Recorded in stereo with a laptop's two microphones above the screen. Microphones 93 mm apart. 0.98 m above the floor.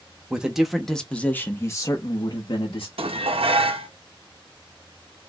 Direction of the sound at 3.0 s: 85° right.